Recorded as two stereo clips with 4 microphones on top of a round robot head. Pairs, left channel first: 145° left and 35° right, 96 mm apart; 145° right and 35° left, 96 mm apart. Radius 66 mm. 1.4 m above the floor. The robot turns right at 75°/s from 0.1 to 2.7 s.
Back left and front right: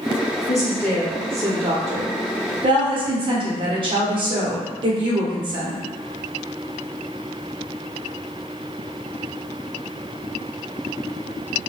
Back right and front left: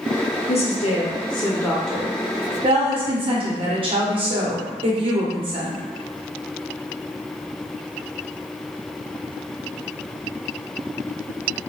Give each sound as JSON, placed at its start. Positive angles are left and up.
{"t": 0.5, "sound": "a woman speaking", "azimuth_deg": -165, "distance_m": 0.9}